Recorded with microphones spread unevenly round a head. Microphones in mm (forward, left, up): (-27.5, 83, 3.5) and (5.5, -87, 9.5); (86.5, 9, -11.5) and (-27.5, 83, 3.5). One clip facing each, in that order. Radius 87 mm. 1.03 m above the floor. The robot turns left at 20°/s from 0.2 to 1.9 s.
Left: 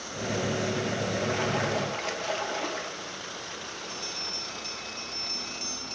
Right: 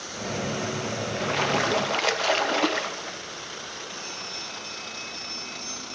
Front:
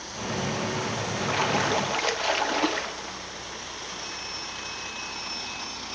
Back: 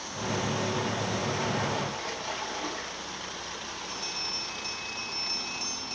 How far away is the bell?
About 1.4 m.